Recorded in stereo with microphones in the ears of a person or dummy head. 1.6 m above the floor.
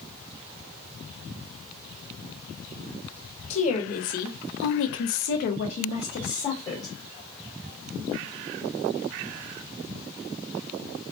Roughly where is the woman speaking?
Left.